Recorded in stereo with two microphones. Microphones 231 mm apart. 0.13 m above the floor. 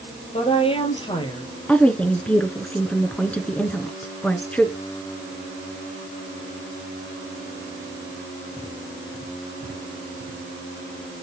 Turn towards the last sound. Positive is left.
turn(degrees=5)  # may be behind; listen again after turning